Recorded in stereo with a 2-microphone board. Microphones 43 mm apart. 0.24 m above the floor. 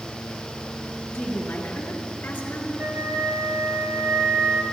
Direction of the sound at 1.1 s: 70° left (ahead or behind).